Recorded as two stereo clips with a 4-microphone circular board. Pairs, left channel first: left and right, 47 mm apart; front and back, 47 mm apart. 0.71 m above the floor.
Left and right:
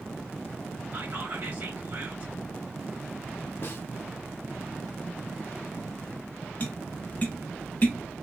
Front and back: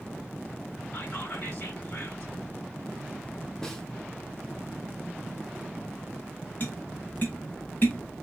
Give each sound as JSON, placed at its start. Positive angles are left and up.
{"t": 0.9, "sound": "whispering", "azimuth_deg": -55, "distance_m": 1.4}
{"t": 3.6, "sound": "a snare drum", "azimuth_deg": 75, "distance_m": 0.8}
{"t": 6.6, "sound": "tapping", "azimuth_deg": 40, "distance_m": 1.1}